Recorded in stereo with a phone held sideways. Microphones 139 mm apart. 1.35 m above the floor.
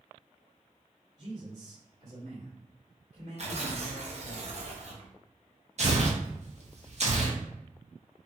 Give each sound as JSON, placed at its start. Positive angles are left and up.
{"t": 1.2, "sound": "a man speaking", "side_deg": -60, "distance_m": 1.5}
{"t": 3.4, "sound": "tearing paper", "side_deg": -50, "distance_m": 0.6}
{"t": 5.8, "sound": "tearing paper", "side_deg": -55, "distance_m": 0.6}